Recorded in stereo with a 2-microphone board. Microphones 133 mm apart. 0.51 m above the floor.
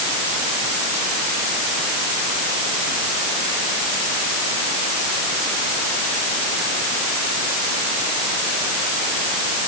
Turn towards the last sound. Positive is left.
No sound to turn to.